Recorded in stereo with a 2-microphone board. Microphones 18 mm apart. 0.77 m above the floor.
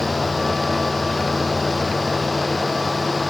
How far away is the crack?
No crack in this recording.